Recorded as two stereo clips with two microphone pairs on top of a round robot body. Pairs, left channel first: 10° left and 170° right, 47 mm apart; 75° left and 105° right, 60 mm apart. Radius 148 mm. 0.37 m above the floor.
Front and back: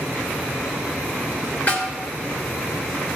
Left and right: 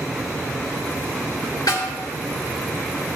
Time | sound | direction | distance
1.7 | a snare drum | 60° left | 3.5 m